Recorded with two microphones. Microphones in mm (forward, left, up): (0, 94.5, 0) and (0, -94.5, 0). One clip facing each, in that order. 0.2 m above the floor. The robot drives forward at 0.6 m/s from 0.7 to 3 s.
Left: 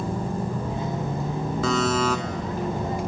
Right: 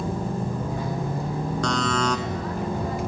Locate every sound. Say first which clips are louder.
1.6 s a buzzer: left 3 dB; 5° left (ahead or behind), 0.9 m